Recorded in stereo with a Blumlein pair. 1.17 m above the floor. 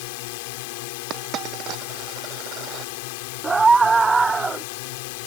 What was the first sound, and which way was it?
A drone, 50° left.